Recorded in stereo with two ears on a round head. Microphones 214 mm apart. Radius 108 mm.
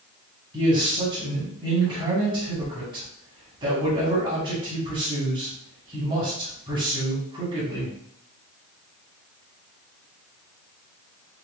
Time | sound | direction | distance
0.5 | a man speaking | 20° right (ahead or behind) | 1.7 m